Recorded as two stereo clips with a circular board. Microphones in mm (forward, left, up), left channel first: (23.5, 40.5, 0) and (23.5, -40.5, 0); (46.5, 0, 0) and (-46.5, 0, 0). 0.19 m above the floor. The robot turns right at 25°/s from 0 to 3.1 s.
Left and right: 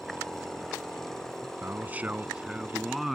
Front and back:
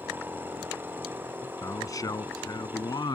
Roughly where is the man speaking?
Ahead right.